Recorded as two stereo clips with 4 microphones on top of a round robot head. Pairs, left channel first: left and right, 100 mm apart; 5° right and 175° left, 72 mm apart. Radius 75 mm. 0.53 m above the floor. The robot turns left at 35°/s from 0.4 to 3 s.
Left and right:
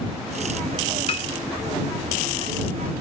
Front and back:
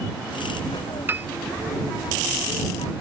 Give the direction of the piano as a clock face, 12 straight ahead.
8 o'clock.